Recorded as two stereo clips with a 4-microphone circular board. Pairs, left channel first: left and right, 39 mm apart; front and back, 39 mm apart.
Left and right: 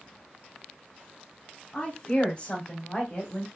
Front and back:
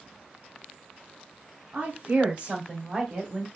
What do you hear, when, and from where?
1.7 s a woman speaking: 140° left, 2 m; by 3.5 s 95° left, 1.5 m